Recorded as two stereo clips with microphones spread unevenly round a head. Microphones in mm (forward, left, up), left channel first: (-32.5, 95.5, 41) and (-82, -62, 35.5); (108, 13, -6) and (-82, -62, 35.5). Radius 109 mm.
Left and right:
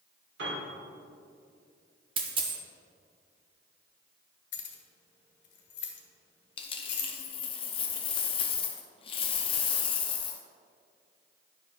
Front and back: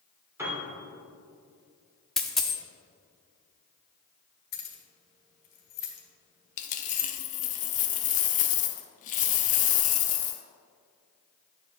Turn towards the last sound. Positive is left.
turn(degrees=65)